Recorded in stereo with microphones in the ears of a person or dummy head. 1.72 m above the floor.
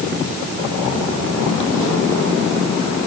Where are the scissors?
No scissors in this recording.